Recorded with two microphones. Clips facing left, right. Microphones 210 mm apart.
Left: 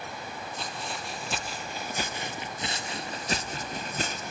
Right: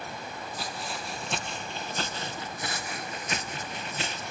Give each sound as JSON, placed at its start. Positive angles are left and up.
{"t": 0.6, "sound": "footsteps", "side_deg": -5, "distance_m": 3.0}